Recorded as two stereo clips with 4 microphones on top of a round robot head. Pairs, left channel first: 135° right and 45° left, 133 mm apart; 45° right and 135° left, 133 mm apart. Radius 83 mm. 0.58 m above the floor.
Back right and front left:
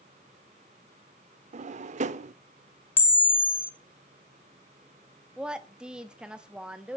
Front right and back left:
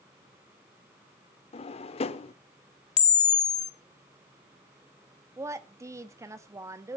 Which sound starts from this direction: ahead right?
A camera shutter, at 3.0 s.